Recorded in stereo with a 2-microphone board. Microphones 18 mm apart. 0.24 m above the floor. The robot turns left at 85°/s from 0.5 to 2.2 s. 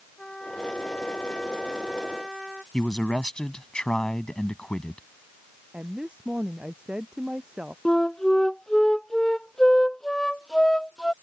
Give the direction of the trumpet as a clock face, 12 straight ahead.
8 o'clock.